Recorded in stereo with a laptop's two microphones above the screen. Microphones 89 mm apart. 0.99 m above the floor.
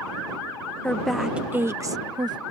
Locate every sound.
0.8 s a woman speaking: 15° left (ahead or behind); by 2.4 s 50° right (ahead or behind)